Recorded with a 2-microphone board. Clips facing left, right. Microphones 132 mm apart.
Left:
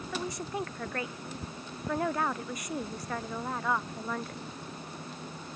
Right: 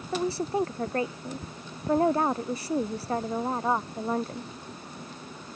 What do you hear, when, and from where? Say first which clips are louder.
0.1 s a woman speaking: right 9 dB; 30° right (ahead or behind)